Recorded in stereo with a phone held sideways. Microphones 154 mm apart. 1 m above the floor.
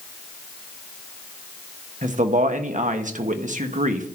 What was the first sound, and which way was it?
A man speaking, 55° right (ahead or behind).